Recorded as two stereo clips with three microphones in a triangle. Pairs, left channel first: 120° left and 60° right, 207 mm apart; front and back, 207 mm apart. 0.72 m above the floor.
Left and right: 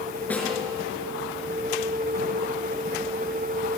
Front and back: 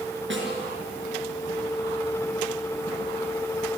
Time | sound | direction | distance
0.3 | a snare drum | 155° right | 5.5 m